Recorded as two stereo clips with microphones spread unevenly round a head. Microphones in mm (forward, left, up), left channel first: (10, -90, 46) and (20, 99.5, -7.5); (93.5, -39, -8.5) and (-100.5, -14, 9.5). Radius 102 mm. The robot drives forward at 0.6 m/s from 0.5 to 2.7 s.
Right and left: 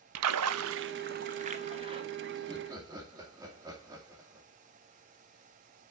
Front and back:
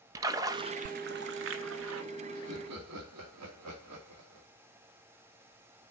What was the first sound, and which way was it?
A splash, 105° left.